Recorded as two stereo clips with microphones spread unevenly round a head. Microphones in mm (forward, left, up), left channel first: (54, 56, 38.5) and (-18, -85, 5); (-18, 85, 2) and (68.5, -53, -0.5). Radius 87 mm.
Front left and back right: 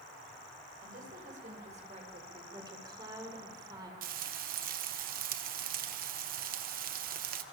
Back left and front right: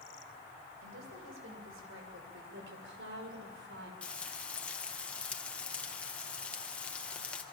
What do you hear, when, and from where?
0.8 s a woman speaking: 75° right, 8 m; by 2.4 s 65° right, 6.5 m
2.5 s a woman speaking: 50° right, 6 m
4.0 s frying: 155° right, 1.7 m